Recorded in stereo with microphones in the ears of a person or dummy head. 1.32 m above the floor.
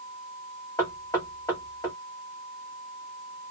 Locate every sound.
0.8 s knocking: 15° left (ahead or behind), 1.7 m